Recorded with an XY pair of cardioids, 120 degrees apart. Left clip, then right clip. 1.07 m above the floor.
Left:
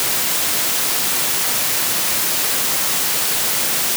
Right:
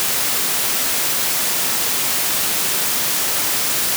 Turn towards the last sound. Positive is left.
No sound to turn to.